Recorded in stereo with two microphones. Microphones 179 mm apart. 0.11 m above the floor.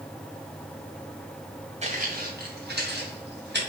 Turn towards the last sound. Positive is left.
turn(degrees=-75)  # may be behind; listen again after turning